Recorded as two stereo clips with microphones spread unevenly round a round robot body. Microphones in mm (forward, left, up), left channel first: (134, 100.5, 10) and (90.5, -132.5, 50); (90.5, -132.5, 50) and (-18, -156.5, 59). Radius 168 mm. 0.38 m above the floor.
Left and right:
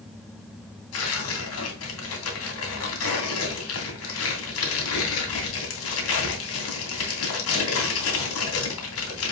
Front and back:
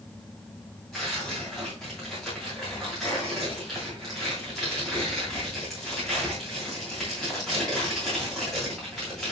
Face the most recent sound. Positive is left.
turn(degrees=95)